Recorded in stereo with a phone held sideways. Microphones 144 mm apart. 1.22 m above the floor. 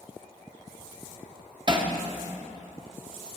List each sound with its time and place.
1.7 s hammering: 35° right (ahead or behind), 0.8 m